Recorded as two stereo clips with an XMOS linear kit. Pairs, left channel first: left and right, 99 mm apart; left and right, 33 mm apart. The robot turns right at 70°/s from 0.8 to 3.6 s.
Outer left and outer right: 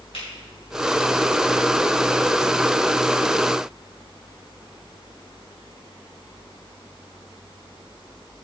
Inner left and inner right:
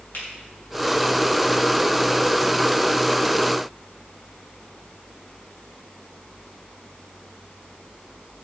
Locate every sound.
0.1 s a finger snap: 70° left (ahead or behind), 5.5 m